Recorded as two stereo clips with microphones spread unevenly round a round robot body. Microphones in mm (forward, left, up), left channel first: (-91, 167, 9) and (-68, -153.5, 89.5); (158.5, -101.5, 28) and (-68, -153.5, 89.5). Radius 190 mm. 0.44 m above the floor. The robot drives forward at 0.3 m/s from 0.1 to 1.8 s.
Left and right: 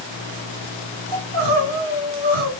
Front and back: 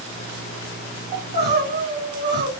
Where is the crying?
110° right, 1.9 m; by 2.5 s 115° right, 1.9 m.